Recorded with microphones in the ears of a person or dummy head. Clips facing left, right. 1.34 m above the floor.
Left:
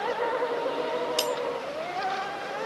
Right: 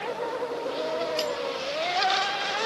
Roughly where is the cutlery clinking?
Left.